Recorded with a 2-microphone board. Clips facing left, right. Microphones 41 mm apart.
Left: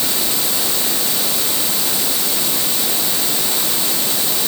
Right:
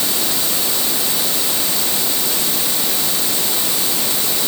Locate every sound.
Only background noise.